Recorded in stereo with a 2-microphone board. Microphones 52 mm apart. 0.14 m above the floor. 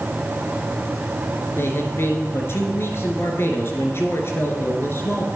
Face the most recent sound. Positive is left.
turn(degrees=50)  # may be behind; listen again after turning